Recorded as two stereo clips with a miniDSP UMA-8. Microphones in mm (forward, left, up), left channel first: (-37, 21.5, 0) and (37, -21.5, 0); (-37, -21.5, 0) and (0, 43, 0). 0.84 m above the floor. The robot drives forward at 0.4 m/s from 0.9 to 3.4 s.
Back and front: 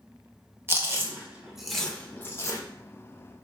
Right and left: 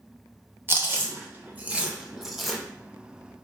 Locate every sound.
0.7 s chewing: 20° left, 0.6 m; by 2.6 s 155° left, 0.5 m